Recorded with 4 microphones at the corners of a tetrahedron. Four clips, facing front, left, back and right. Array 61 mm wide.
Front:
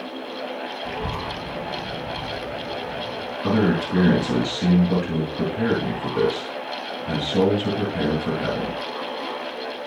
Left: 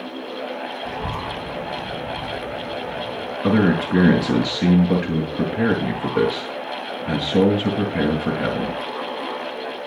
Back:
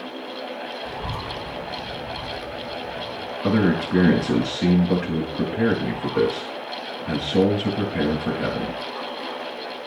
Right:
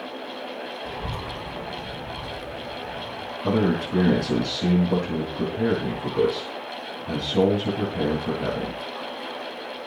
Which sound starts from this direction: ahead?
A child speaking, at 0.8 s.